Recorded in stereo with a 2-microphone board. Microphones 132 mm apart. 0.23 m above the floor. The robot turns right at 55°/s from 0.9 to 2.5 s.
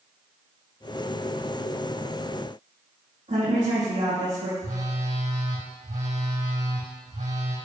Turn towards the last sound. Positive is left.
turn(degrees=-65)  # may be behind; listen again after turning